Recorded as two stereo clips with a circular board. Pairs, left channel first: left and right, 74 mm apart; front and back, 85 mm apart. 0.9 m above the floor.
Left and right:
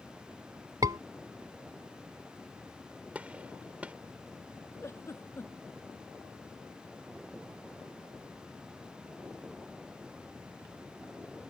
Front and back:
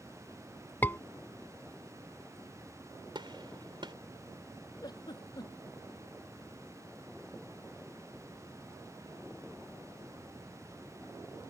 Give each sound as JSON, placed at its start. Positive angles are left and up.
{"t": 0.8, "sound": "a scream", "azimuth_deg": -65}
{"t": 3.1, "sound": "a gunshot", "azimuth_deg": -160}
{"t": 4.8, "sound": "a giggle", "azimuth_deg": 40}